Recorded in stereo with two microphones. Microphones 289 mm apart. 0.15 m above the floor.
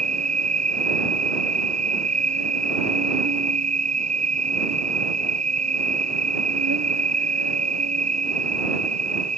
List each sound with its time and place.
0.0 s an insect: 65° right (ahead or behind)